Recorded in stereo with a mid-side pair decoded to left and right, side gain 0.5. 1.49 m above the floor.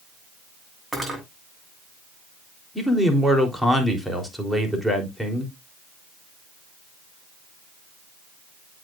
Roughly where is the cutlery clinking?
Ahead.